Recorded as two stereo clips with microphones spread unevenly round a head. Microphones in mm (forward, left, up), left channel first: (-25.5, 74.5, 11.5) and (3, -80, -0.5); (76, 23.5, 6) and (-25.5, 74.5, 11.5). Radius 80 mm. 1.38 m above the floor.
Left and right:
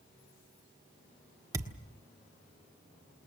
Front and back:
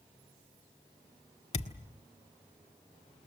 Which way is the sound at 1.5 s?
10° right.